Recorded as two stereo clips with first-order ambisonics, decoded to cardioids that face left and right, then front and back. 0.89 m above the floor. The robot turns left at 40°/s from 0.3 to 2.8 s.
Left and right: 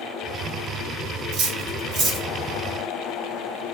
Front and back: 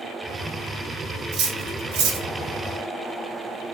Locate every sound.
1.3 s cutlery clinking: 135° right, 1.2 m; by 2.3 s 175° right, 1.2 m